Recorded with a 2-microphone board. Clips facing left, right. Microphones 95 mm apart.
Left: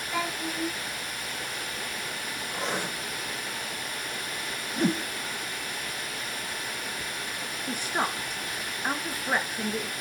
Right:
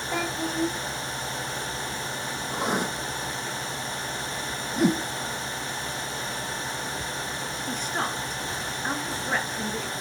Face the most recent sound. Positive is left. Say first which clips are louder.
# left 1 dB
turn(degrees=10)  # may be behind; listen again after turning